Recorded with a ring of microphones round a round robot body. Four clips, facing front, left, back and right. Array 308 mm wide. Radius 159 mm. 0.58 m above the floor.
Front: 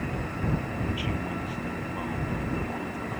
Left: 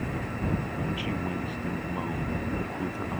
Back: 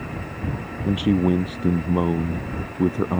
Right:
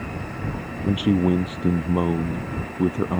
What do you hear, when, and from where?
0.8 s a man speaking: 135° right; by 3.2 s 145° right